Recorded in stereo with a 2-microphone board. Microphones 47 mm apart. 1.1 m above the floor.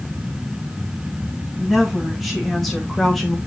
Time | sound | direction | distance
1.6 | a woman speaking | centre (ahead or behind) | 2.5 m